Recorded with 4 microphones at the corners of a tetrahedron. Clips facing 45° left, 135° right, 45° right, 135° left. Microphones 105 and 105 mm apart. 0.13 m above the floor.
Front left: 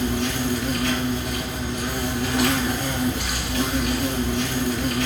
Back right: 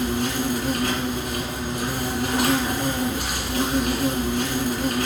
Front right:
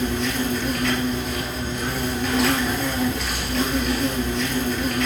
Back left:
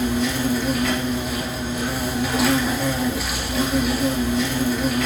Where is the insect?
140° right, 2 m.